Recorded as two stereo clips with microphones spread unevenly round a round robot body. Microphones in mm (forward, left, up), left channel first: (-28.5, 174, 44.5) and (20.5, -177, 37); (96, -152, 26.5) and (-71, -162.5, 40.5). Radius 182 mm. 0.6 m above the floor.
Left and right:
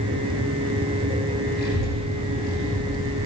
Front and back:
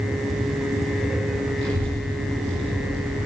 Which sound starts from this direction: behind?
A child speaking, at 1.6 s.